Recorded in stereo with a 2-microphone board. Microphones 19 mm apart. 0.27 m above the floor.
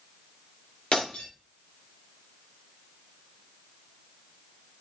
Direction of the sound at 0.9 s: 70° left (ahead or behind).